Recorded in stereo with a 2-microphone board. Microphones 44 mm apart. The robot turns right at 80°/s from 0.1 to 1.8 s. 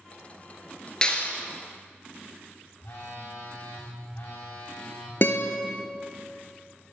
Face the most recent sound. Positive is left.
turn(degrees=50)  # may be behind; listen again after turning